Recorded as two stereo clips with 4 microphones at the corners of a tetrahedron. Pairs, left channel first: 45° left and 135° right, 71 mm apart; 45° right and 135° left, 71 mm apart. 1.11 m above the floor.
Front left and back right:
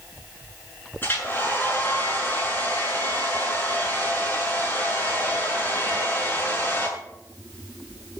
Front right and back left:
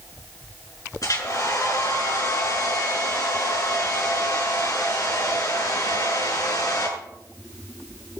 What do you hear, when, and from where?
1.0 s a hair dryer: 15° right, 7 m